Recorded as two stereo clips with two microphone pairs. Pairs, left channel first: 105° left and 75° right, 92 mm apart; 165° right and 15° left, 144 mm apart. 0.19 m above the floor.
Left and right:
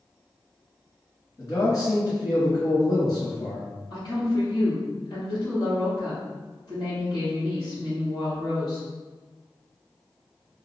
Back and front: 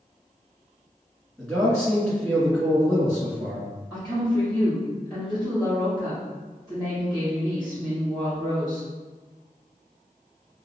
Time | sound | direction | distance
1.4 | a man speaking | 115° left | 2.0 m
3.9 | a woman speaking | 135° left | 1.8 m